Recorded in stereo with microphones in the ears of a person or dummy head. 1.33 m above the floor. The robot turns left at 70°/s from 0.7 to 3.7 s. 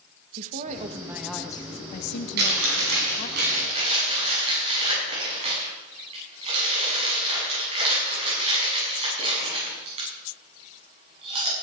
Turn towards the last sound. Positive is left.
turn(degrees=-35)  # may be behind; listen again after turning